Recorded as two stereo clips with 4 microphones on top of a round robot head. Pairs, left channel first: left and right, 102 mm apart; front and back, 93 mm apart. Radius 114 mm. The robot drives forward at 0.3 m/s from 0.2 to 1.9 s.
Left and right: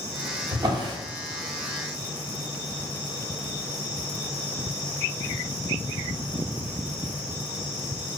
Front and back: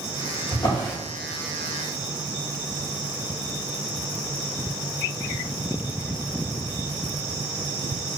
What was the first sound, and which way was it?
A drawer, 45° right.